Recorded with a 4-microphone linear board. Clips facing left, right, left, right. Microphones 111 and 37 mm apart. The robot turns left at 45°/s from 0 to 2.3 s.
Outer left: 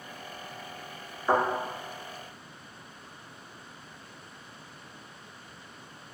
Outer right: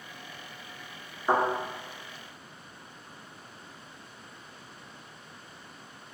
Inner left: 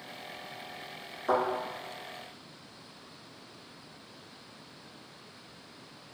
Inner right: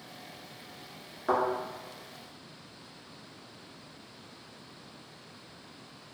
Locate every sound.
1.3 s a thud: 15° right (ahead or behind), 1.4 m; by 1.4 s 20° right (ahead or behind), 1.4 m